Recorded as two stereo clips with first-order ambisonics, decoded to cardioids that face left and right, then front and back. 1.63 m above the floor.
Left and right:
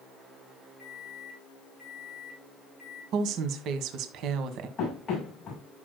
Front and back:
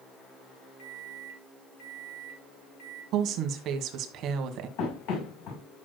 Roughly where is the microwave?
Ahead.